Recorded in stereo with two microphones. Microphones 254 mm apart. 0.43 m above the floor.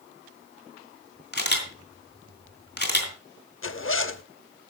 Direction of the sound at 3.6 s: 55° left (ahead or behind).